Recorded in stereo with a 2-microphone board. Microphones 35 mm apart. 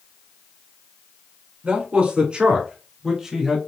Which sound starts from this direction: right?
A man speaking, at 1.6 s.